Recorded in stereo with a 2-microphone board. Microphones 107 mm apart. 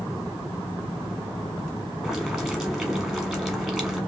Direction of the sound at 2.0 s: Centre (ahead or behind).